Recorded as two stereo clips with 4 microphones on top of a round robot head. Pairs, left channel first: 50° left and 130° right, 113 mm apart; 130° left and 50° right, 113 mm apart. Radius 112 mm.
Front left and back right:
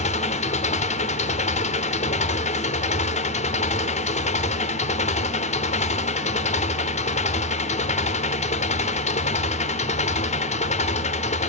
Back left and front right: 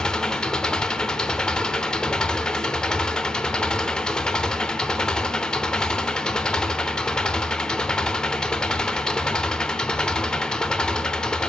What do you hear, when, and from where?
0.0 s an engine running: 50° left, 0.9 m